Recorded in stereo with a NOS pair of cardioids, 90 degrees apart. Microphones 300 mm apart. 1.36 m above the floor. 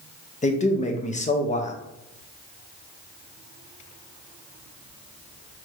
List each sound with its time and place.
0.4 s a man speaking: 25° left, 1.0 m